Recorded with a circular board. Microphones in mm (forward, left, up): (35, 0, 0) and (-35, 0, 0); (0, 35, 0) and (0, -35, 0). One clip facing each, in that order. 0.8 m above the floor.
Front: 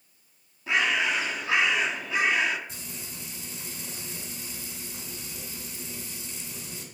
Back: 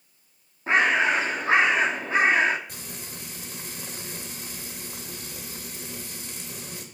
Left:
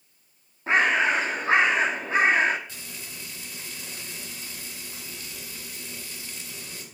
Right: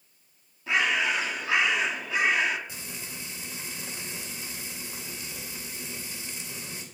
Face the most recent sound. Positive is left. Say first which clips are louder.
# back 2 dB, right 1 dB
turn(degrees=-165)